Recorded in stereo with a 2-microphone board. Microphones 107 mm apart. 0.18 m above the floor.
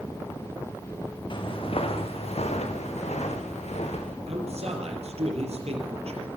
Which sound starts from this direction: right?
A man speaking, at 4.3 s.